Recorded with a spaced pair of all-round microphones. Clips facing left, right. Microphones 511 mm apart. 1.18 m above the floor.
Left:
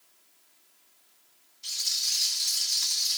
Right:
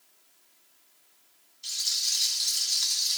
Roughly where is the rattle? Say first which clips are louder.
Even; left.